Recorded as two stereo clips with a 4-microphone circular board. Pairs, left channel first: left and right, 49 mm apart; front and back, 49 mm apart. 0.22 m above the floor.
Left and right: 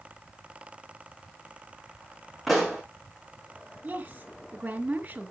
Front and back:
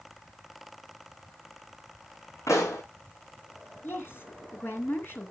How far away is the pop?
About 7 m.